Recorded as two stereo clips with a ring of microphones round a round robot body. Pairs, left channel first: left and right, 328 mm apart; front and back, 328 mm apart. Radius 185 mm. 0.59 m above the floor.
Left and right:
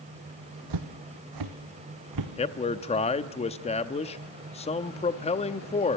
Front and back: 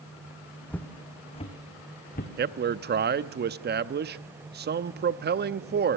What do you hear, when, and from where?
0.7 s footsteps: 85° right, 1.3 m; by 2.3 s 65° right, 2 m
2.4 s a man speaking: 145° left, 0.7 m